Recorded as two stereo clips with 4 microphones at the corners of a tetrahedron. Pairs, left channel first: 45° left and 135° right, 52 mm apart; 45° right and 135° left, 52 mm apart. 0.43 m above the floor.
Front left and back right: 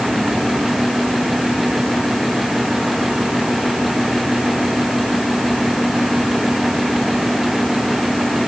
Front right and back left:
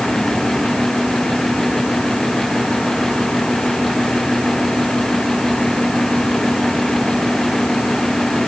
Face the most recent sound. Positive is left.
No sound to turn to.